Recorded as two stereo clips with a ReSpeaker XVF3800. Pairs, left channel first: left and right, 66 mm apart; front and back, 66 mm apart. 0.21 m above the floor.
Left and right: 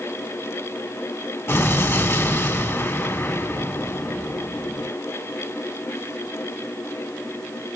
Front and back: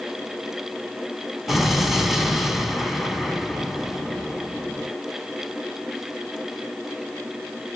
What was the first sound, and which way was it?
An explosion, 95° left.